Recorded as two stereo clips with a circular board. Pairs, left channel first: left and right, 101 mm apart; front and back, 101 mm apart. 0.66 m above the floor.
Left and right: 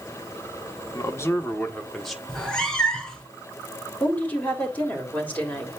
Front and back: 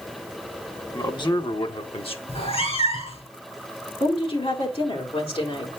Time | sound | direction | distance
0.9 | a man speaking | 40° left | 1.4 m
2.3 | a cat meowing | 10° left | 2.0 m
4.0 | a woman speaking | 20° left | 3 m